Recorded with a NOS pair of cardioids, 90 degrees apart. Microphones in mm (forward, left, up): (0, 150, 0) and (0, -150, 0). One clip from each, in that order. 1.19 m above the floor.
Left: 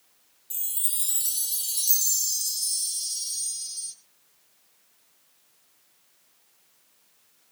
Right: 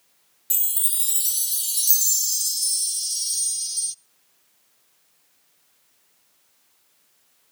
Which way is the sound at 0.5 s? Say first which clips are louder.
Right 6 dB; 55° right.